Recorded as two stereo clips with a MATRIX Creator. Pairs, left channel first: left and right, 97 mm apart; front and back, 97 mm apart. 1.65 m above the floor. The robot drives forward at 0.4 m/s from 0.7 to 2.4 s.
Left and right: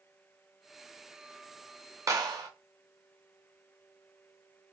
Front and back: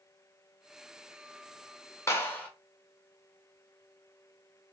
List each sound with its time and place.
2.1 s a clap: 50° right, 0.6 m; by 2.5 s 65° right, 0.6 m